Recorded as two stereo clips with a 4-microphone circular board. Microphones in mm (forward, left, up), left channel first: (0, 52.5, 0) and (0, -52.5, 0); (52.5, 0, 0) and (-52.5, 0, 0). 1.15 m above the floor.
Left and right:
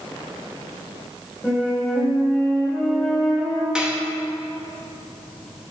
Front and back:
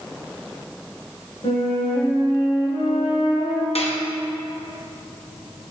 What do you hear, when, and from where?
1.4 s a flute: 5° left, 2.0 m
3.8 s dishes clattering: 10° right, 0.8 m